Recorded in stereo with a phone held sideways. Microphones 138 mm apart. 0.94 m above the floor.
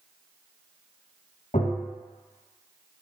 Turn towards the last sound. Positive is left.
turn(degrees=80)